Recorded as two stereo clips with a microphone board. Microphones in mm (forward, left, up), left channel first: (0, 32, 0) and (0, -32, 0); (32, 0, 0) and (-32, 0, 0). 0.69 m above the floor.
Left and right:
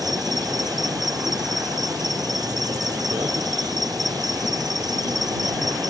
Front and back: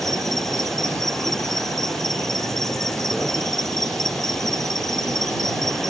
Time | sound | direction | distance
0.0 | an insect | 85° right | ?